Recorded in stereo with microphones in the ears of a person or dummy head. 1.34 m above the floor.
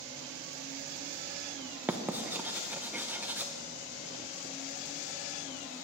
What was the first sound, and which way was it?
Writing, 5° right (ahead or behind).